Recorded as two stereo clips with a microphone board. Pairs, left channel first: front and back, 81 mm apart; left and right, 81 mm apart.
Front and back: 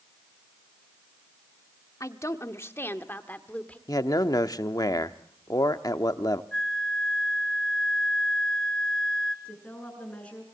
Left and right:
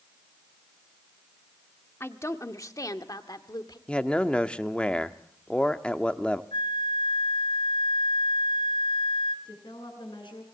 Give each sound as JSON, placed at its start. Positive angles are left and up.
{"t": 2.0, "sound": "a woman speaking", "azimuth_deg": 40, "distance_m": 1.5}
{"t": 3.9, "sound": "a man speaking", "azimuth_deg": 15, "distance_m": 1.1}
{"t": 6.5, "sound": "a flute", "azimuth_deg": 80, "distance_m": 2.0}
{"t": 9.4, "sound": "a woman speaking", "azimuth_deg": 75, "distance_m": 8.5}